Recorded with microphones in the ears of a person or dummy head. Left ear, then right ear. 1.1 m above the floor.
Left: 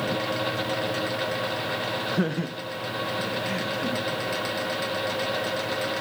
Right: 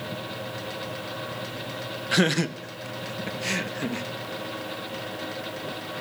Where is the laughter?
65° right (ahead or behind), 1.2 m; by 4.1 s 60° right (ahead or behind), 1.6 m.